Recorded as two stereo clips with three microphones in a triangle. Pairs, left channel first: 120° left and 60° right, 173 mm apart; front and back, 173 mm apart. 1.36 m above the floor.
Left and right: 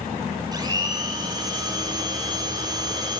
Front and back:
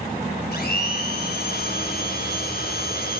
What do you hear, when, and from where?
0.5 s a blender: 5° left, 5 m